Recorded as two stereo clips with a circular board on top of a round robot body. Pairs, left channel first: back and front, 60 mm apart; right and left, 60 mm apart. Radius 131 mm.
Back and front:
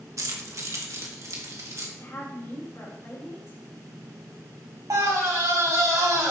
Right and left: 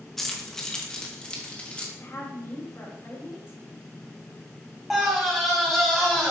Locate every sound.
0.2 s keys jangling: 5° right, 1.6 m; by 1.9 s 25° right, 2 m
1.9 s a woman speaking: 135° right, 4 m
4.9 s a scream: straight ahead, 4 m